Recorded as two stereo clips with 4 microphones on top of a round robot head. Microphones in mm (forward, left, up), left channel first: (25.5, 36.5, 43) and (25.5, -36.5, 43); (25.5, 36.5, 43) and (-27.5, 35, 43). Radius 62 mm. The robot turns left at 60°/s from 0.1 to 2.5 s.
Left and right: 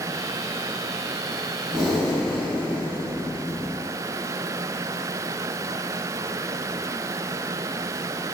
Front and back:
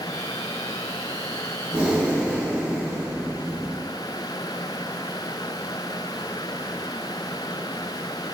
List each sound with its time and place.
1.7 s breathing: 165° right, 0.7 m; by 3.8 s 150° left, 0.7 m